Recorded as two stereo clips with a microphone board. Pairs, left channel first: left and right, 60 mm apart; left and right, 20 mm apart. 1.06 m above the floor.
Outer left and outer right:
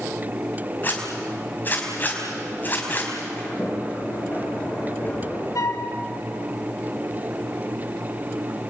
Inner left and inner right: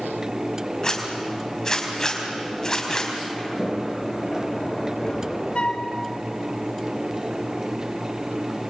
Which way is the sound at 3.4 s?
30° left (ahead or behind).